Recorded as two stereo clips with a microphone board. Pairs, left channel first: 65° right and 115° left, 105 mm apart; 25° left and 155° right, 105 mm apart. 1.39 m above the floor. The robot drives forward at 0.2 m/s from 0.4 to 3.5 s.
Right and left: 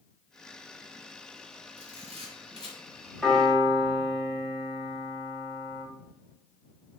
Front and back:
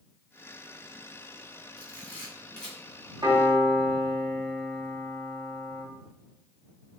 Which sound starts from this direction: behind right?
A piano, at 3.2 s.